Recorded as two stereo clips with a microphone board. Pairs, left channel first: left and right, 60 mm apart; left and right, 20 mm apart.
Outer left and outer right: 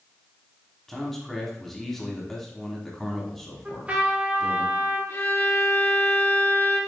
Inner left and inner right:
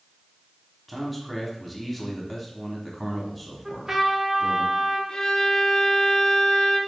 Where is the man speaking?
5° left (ahead or behind), 1.1 m.